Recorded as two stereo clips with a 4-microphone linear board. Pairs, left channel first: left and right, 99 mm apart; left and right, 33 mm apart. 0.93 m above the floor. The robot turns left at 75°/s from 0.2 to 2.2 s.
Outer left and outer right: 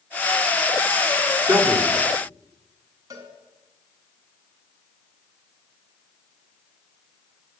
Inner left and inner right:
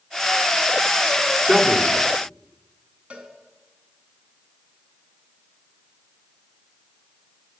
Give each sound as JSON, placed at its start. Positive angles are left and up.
{"t": 1.5, "sound": "a man speaking", "azimuth_deg": -120, "distance_m": 3.0}
{"t": 3.1, "sound": "a cowbell", "side_deg": -35, "distance_m": 3.5}